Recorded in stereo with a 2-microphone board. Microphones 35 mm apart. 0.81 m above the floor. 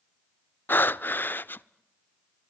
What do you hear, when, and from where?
0.7 s breathing: 60° left (ahead or behind), 0.6 m